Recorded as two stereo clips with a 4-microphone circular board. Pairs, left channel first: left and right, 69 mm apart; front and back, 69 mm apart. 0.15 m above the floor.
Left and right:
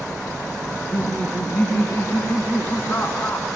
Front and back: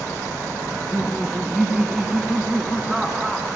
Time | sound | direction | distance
0.7 | laughter | 105° left | 1.8 m